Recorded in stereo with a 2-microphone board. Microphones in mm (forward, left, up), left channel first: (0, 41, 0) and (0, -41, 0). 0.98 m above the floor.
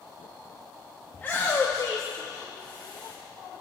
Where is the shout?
20° left (ahead or behind), 1.3 m; by 3.1 s 60° left (ahead or behind), 1.9 m.